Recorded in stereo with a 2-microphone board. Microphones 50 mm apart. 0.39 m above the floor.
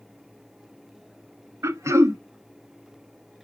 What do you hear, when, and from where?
1.6 s throat clearing: 80° right, 0.6 m